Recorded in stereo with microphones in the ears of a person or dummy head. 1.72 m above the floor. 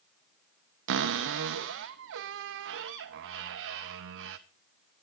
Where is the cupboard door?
55° right (ahead or behind), 0.9 m.